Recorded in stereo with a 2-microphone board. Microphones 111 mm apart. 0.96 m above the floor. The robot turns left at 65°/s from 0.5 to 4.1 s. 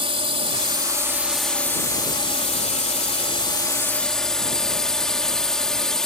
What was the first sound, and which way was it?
A drone, 120° right.